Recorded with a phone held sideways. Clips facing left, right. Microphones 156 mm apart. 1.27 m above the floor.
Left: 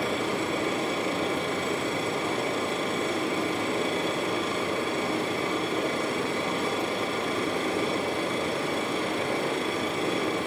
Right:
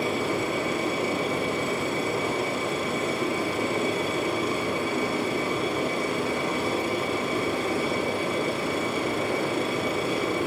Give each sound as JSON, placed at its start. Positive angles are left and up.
{"t": 0.0, "sound": "a machine running", "side_deg": -10, "distance_m": 1.9}